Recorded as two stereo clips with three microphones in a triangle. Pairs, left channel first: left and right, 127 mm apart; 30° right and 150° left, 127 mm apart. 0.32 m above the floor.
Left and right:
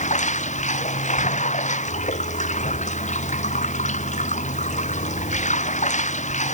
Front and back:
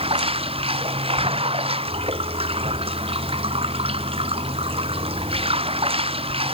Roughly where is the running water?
Left.